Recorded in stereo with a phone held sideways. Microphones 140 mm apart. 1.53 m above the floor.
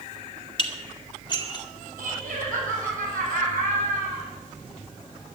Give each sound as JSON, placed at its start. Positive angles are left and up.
{"t": 0.6, "sound": "dishes clattering", "side_deg": 35, "distance_m": 2.0}
{"t": 2.0, "sound": "laughter", "side_deg": -80, "distance_m": 8.0}